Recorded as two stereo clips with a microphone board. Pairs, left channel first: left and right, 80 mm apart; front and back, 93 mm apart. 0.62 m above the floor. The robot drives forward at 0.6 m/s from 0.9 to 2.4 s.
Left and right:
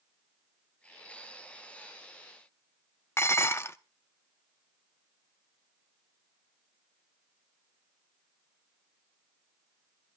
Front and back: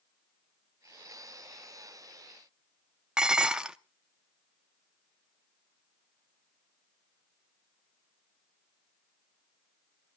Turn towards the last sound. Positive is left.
turn(degrees=105)